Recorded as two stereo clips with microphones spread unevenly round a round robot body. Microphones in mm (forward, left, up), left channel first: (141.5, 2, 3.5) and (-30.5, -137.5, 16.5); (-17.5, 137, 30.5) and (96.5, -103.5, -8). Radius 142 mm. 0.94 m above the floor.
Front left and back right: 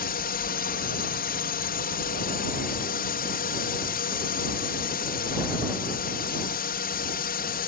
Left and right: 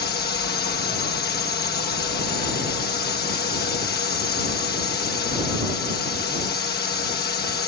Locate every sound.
0.0 s a drone: 65° left